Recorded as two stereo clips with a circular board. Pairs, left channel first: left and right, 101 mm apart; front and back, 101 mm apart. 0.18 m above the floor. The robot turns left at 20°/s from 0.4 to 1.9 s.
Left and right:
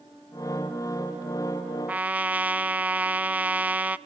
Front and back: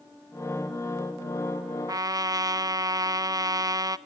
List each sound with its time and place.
1.9 s a trumpet: 155° right, 0.8 m